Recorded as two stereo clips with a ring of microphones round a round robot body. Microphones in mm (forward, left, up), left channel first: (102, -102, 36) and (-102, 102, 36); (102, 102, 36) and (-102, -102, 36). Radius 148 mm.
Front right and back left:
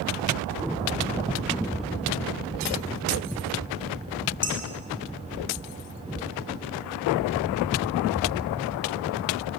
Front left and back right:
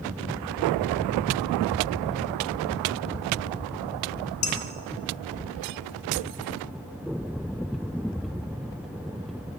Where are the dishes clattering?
35° left, 2.0 m.